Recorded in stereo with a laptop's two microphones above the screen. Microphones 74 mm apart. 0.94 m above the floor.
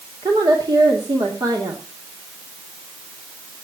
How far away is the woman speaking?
About 2.5 m.